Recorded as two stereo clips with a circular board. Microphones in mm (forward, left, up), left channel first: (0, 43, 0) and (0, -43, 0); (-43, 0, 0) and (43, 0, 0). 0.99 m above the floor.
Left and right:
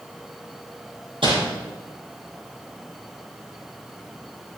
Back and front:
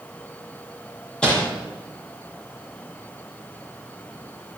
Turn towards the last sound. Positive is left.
turn(degrees=-100)